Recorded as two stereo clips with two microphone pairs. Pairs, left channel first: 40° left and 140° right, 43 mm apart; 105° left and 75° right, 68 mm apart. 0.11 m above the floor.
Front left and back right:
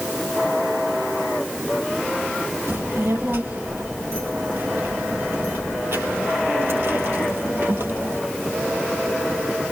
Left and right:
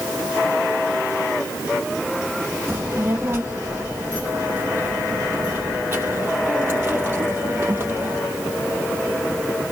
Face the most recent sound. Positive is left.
turn(degrees=-130)